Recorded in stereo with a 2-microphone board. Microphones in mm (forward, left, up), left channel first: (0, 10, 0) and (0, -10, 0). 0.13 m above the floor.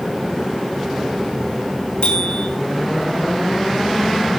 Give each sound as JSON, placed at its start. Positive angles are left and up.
{"t": 2.0, "sound": "a bicycle bell", "side_deg": 65, "distance_m": 7.5}